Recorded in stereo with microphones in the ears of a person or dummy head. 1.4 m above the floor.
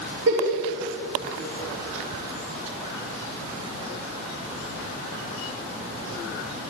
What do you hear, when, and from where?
0.3 s a giggle: 70° right (ahead or behind), 3 m